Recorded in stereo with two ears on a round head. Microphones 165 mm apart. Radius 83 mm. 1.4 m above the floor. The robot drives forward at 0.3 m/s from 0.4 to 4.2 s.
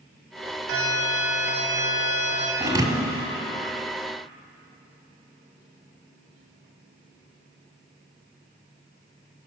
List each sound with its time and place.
0.7 s an alarm: 75° right (ahead or behind), 4 m; by 2.5 s 80° right, 4 m
2.6 s a thud: 20° right (ahead or behind), 1.6 m; by 3.2 s 25° right (ahead or behind), 1.5 m